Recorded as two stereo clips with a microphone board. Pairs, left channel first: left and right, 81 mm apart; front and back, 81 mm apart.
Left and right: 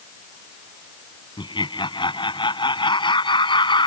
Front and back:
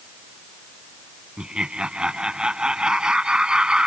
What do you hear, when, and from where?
1.4 s laughter: 100° left